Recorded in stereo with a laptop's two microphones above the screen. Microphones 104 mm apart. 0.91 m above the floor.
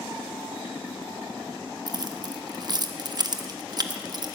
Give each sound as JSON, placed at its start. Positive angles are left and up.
{"t": 1.9, "sound": "keys jangling", "side_deg": -40, "distance_m": 0.8}